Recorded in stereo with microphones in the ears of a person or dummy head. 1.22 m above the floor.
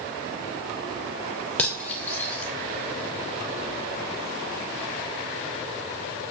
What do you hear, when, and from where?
1.6 s cutlery clinking: 15° left (ahead or behind), 0.5 m